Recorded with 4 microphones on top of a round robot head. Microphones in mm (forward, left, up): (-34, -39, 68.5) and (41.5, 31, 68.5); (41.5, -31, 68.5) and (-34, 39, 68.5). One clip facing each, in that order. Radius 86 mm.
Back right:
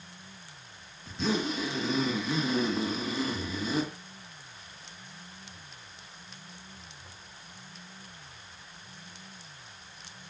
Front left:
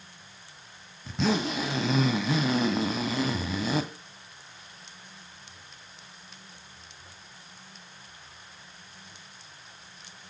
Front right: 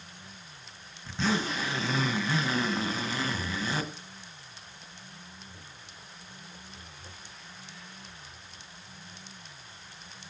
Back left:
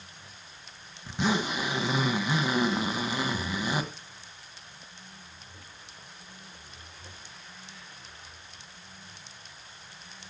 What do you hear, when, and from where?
1.1 s a zipper: 60° left, 1.6 m